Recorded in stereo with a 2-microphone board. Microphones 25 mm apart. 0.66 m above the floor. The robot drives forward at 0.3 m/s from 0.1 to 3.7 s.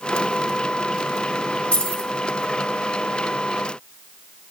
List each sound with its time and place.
1.7 s keys jangling: 65° left (ahead or behind), 1.1 m